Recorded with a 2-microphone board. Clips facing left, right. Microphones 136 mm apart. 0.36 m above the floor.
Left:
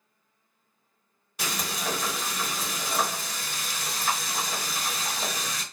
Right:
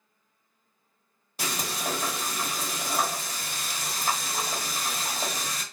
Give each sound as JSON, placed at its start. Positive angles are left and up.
{"t": 1.4, "sound": "frying", "side_deg": -30, "distance_m": 1.7}